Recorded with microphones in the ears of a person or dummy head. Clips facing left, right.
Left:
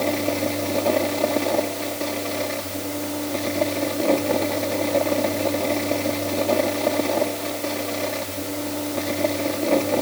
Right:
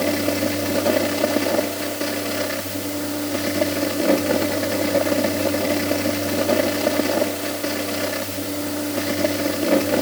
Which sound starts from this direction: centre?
A fan, at 0.0 s.